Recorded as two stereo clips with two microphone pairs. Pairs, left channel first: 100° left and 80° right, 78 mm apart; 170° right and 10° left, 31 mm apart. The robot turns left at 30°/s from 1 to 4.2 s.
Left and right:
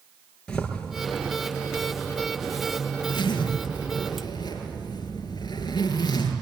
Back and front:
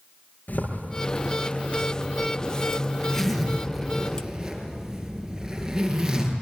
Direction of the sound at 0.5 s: 175° left.